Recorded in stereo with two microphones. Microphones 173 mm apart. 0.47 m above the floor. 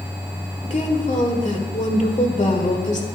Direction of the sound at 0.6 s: 45° left (ahead or behind).